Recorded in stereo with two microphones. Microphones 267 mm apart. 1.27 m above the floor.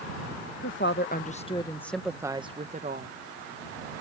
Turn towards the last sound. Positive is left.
turn(degrees=-35)  # may be behind; listen again after turning